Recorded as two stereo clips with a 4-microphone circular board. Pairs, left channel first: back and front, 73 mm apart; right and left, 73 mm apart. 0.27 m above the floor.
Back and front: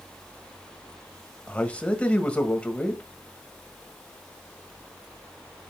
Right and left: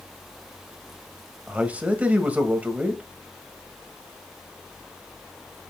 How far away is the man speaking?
About 1.6 m.